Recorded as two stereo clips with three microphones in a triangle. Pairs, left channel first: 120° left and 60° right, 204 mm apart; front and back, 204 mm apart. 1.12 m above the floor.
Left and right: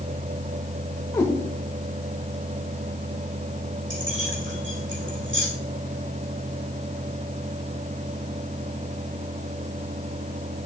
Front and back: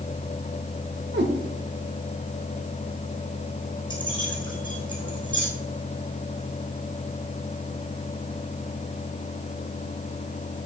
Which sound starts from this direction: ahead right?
Keys jangling, at 3.9 s.